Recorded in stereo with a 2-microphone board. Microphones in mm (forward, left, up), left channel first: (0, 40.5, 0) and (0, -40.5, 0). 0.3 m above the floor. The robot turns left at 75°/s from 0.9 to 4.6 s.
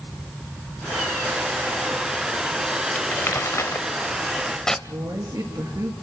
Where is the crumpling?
25° left (ahead or behind), 0.8 m; by 4.8 s 5° left (ahead or behind), 0.8 m.